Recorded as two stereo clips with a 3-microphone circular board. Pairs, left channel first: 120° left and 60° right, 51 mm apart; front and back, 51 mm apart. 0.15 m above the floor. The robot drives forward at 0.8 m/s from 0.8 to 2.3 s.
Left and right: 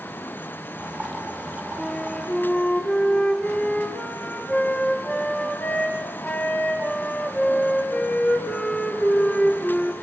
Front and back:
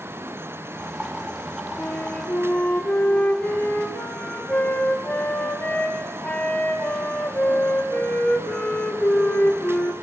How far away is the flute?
About 3 m.